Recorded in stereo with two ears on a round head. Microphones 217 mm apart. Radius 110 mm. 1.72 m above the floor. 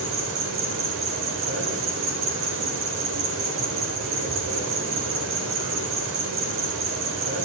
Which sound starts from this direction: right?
An insect, at 0.0 s.